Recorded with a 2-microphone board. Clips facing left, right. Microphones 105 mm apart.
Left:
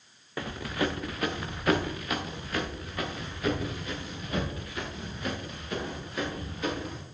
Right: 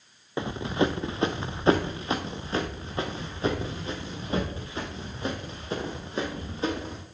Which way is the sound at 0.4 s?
25° right (ahead or behind).